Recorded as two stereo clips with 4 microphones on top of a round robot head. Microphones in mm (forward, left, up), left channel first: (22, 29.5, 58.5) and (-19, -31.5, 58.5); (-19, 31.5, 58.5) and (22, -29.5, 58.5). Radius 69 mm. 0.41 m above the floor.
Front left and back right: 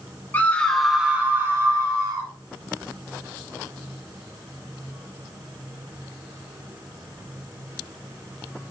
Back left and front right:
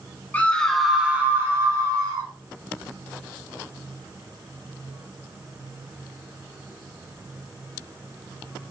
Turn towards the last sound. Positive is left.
turn(degrees=-90)